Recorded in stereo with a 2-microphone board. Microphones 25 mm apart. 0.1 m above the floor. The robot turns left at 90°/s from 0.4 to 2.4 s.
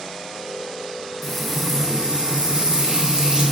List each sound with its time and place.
1.2 s frying: 15° left, 0.8 m; by 3.5 s 90° right, 0.8 m